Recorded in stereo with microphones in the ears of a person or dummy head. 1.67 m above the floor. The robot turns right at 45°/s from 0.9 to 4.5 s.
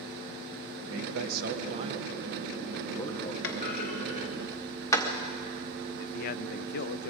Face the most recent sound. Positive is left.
turn(degrees=45)  # may be behind; listen again after turning